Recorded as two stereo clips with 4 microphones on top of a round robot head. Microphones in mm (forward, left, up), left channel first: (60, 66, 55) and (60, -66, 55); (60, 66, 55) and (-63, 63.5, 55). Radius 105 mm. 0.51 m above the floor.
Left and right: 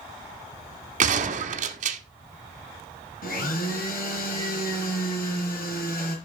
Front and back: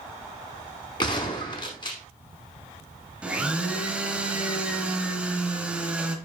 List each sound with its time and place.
1.0 s a gunshot: 65° right, 0.7 m
3.2 s a blender: 100° left, 2 m